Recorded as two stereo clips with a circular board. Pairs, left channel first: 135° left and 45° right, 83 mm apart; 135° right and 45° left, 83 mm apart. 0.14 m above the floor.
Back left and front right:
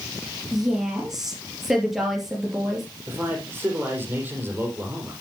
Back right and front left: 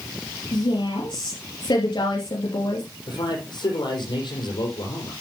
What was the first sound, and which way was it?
A woman speaking, 130° right.